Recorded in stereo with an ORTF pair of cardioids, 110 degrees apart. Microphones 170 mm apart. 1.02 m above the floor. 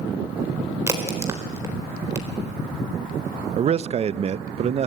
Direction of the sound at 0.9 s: 15° right.